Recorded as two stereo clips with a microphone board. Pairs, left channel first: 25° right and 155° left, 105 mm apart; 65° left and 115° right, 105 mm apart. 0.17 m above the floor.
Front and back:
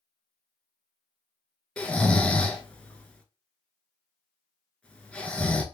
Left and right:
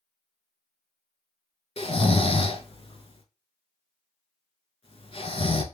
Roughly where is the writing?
No writing in this recording.